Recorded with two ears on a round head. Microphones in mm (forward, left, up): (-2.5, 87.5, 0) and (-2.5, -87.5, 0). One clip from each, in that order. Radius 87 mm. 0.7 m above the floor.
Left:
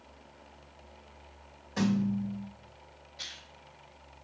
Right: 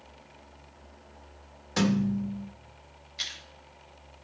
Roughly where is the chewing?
Right.